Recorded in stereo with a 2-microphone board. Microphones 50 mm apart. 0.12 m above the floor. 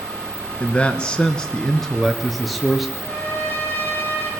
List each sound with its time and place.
0.6 s a man speaking: 20° left (ahead or behind), 1.9 m; by 2.9 s 5° right (ahead or behind), 2.5 m
3.0 s a trumpet: 30° left (ahead or behind), 6 m